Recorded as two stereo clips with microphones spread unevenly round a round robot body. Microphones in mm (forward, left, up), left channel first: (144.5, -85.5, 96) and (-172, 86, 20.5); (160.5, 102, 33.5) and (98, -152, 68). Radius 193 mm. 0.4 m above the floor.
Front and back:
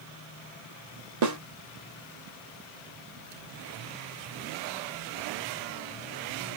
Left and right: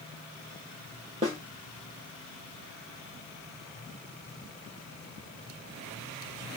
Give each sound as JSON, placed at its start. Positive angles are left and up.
{"t": 1.2, "sound": "a snare drum", "azimuth_deg": 180, "distance_m": 0.8}